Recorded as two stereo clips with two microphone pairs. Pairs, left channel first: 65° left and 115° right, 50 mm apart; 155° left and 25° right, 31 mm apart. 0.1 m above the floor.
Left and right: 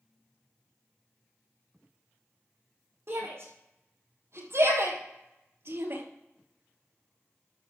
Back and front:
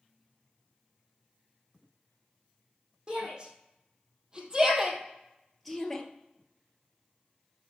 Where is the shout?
85° right, 4.5 m; by 6.0 s 130° right, 1.7 m.